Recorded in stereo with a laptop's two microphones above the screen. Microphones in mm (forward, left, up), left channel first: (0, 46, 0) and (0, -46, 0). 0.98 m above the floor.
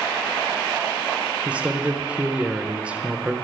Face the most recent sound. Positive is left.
turn(degrees=-15)  # may be behind; listen again after turning